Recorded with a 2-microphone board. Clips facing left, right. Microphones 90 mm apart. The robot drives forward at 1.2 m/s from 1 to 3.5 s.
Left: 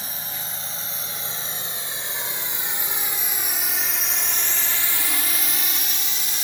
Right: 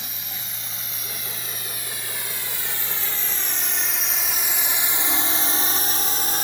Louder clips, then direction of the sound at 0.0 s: Left 3 dB; 35° left (ahead or behind).